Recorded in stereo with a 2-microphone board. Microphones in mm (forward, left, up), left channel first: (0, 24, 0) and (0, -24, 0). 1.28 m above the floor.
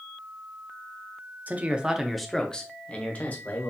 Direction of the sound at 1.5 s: 35° right (ahead or behind).